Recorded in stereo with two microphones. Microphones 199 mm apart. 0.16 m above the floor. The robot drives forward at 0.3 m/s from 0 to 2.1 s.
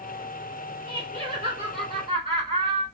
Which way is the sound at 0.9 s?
30° right (ahead or behind).